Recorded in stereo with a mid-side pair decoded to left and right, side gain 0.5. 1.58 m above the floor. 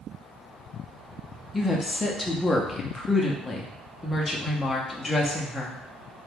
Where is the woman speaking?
15° left, 0.6 m.